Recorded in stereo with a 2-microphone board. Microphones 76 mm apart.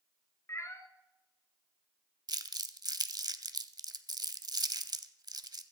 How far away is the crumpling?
About 0.7 m.